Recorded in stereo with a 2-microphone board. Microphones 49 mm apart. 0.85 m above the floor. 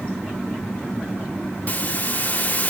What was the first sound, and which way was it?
A hiss, 35° left (ahead or behind).